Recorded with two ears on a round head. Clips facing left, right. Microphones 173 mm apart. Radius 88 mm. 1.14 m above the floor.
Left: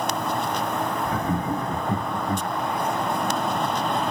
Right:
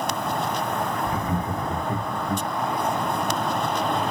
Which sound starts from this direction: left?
Laughter, at 1.1 s.